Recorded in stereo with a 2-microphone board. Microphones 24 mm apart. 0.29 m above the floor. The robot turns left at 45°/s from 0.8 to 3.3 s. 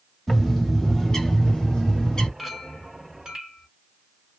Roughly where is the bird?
Behind.